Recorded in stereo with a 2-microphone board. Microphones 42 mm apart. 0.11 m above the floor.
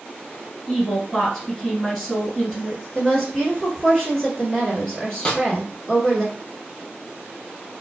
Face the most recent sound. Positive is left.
turn(degrees=20)  # may be behind; listen again after turning